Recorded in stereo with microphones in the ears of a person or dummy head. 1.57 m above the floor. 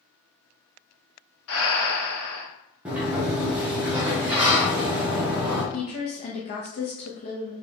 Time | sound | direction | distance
1.5 | breathing | 85° left | 0.9 m
2.9 | a sliding door | 10° right (ahead or behind) | 0.6 m
5.7 | a woman speaking | 35° left (ahead or behind) | 0.6 m